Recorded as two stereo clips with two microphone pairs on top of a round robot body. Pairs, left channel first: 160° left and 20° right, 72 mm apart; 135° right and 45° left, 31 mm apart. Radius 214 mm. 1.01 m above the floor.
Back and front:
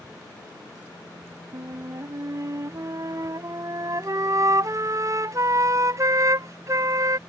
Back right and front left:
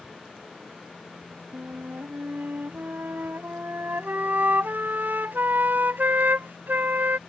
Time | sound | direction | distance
1.5 | a flute | 25° left | ?